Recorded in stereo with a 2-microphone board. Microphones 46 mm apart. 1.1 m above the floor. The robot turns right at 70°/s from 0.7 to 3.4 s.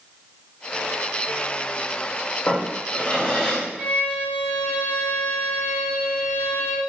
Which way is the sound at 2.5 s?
95° left.